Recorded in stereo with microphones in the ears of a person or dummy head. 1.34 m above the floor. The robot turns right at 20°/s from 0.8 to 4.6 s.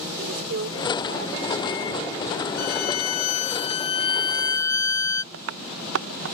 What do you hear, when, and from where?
0.2 s a woman speaking: 70° right; by 2.5 s 35° right
2.6 s a violin: 120° left; by 5.2 s 160° left
5.3 s tapping: 85° right